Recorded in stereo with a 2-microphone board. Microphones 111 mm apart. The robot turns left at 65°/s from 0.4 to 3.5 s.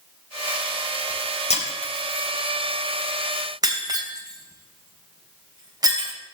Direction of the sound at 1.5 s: 80° left.